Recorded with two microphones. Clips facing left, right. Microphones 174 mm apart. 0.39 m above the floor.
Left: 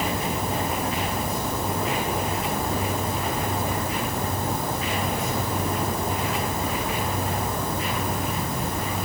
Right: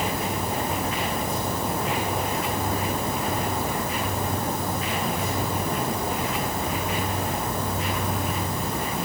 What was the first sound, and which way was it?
Only background noise.